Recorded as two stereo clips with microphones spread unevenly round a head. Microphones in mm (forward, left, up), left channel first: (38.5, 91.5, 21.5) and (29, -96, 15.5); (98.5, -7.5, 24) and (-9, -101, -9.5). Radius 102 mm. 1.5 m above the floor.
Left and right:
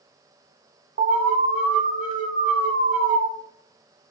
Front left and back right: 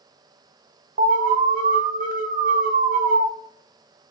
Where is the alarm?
135° right, 0.7 m.